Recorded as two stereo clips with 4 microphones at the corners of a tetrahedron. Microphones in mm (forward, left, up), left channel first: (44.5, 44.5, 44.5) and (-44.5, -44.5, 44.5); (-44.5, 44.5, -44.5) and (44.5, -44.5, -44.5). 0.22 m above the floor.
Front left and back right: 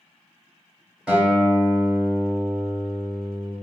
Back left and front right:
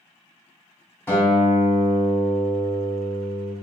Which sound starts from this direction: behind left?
A guitar, at 1.1 s.